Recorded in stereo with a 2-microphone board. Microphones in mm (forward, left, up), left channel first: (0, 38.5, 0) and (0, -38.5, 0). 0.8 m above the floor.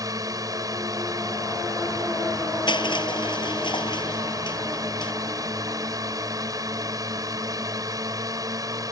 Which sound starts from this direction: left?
Crushing, at 2.7 s.